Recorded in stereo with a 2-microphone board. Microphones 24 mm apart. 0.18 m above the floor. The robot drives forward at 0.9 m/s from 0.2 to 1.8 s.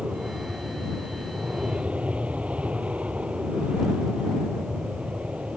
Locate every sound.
0.0 s an aircraft: 60° right (ahead or behind)